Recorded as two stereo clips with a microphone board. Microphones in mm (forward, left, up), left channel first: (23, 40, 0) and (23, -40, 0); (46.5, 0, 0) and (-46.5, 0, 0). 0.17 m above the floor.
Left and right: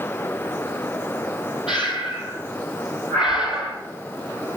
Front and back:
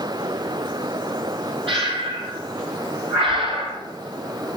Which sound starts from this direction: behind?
Breathing, at 1.7 s.